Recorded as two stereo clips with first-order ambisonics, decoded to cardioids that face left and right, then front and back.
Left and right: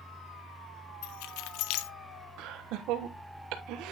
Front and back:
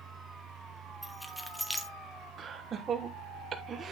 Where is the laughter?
115° right, 1.1 m.